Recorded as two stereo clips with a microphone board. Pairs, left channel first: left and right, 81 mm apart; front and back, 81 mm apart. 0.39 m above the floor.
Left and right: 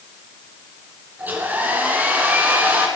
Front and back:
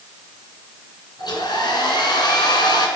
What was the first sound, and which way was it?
A hair dryer, 25° right.